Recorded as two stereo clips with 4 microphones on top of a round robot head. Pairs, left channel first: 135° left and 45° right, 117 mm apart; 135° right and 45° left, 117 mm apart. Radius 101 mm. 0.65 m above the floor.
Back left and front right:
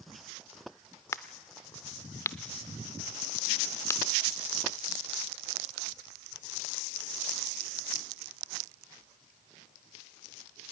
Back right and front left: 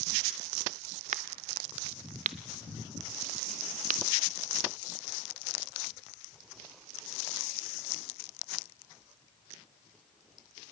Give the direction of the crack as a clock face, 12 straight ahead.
10 o'clock.